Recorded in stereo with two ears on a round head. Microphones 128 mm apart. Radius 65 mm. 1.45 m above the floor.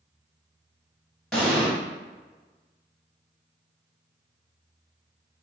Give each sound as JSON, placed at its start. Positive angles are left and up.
{"t": 1.3, "sound": "an explosion", "side_deg": 5, "distance_m": 1.3}